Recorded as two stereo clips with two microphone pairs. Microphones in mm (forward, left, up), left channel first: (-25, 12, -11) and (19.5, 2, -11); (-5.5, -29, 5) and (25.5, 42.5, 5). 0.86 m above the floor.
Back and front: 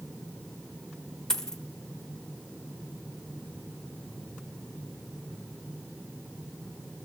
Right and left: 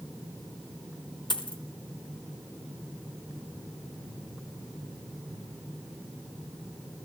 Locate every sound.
1.3 s a dropped coin: 115° right, 1.0 m